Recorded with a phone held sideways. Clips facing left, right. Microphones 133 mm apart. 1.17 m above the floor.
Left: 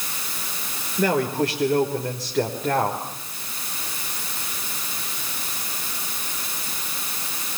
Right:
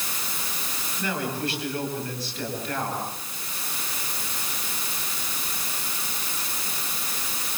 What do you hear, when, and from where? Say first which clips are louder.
1.0 s a man speaking: left 8 dB; 85° left, 4.5 m